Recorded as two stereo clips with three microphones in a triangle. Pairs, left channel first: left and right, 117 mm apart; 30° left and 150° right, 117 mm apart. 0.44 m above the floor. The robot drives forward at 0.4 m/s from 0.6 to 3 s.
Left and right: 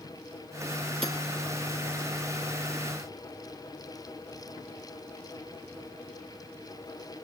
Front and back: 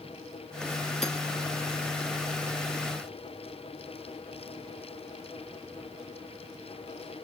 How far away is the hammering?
About 4 m.